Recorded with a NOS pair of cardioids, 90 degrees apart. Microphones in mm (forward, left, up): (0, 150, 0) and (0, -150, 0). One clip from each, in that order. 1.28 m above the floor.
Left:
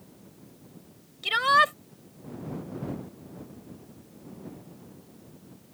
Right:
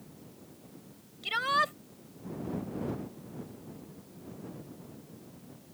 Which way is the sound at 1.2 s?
45° left.